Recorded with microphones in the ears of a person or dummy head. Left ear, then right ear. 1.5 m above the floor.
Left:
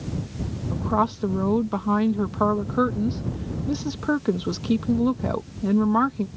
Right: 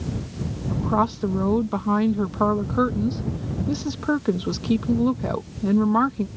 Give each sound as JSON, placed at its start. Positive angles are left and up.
{"t": 0.7, "sound": "a woman speaking", "side_deg": 0}